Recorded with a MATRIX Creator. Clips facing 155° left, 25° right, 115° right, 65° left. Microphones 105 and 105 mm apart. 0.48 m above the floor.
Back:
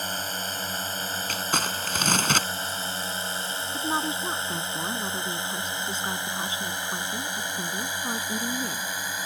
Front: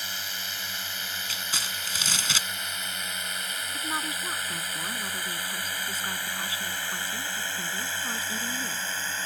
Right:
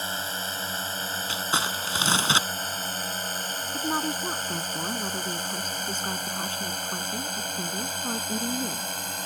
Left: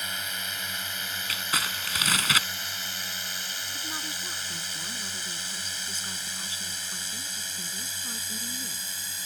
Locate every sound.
0.0 s a drone: 165° right; by 9.3 s 125° right
1.3 s crumpling: 175° right
3.7 s a woman speaking: 140° right